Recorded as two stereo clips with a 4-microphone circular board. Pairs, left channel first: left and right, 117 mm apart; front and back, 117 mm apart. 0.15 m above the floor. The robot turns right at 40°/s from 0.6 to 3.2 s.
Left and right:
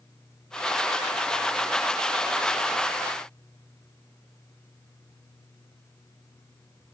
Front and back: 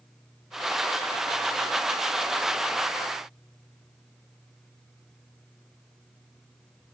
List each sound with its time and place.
Only background noise.